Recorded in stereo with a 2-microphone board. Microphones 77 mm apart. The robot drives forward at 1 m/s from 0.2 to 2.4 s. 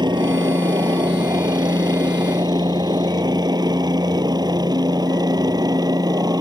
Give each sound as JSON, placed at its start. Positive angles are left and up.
{"t": 0.0, "sound": "a helicopter", "side_deg": -65}